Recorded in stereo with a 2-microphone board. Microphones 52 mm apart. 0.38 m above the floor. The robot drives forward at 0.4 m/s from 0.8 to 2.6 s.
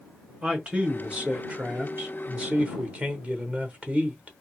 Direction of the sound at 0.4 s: 20° right (ahead or behind).